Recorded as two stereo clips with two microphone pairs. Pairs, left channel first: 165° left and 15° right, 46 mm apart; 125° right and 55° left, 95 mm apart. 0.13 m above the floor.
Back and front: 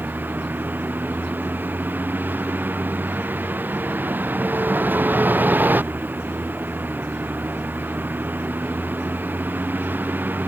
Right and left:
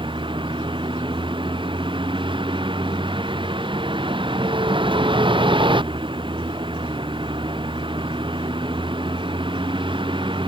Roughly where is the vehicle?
Ahead left.